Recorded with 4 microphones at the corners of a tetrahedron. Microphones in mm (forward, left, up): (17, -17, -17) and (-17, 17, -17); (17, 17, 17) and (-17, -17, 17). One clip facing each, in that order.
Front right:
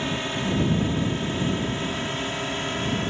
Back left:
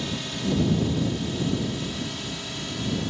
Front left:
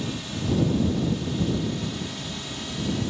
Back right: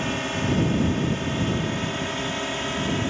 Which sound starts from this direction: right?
A drone, at 0.0 s.